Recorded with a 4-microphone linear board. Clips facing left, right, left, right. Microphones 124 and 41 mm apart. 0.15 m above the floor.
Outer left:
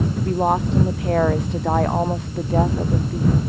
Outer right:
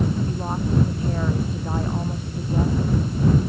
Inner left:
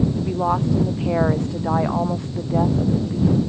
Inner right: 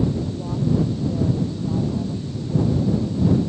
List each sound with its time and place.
0.2 s a woman speaking: 80° left